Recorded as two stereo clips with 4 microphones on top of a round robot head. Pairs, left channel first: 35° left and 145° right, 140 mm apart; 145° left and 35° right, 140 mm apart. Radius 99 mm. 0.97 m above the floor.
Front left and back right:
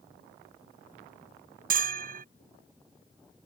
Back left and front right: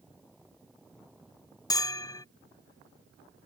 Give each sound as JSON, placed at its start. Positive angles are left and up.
{"t": 1.7, "sound": "a bell", "azimuth_deg": -150}